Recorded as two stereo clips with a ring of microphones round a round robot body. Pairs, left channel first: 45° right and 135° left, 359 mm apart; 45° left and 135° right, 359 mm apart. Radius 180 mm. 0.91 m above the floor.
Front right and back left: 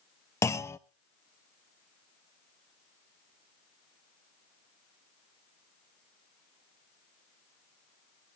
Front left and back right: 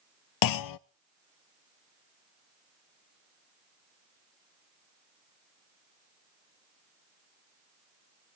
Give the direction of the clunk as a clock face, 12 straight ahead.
11 o'clock.